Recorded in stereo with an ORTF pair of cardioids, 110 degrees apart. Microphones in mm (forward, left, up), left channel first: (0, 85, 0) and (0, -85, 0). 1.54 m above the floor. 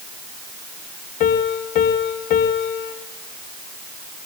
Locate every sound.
1.2 s a piano: 60° left, 2.5 m